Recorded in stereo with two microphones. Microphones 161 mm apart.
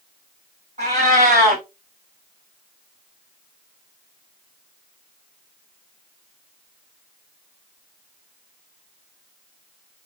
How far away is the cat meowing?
About 2 m.